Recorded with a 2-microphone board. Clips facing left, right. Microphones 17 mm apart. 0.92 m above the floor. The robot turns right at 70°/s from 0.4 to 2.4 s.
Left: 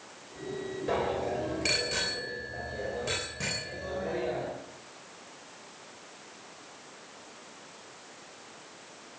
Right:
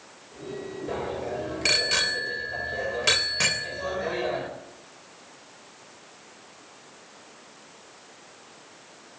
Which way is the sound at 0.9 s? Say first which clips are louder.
Left 2 dB; 150° left.